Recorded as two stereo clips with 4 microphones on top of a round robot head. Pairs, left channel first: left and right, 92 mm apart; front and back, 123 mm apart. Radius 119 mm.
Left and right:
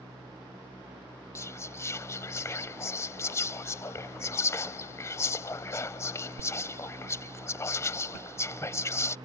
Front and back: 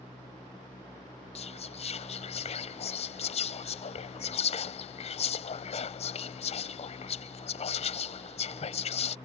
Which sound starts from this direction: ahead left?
Whispering, at 1.4 s.